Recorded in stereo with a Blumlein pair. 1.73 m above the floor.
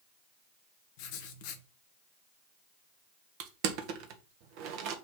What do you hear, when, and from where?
1.0 s writing: 45° left, 1.1 m
3.4 s crushing: 45° right, 1.2 m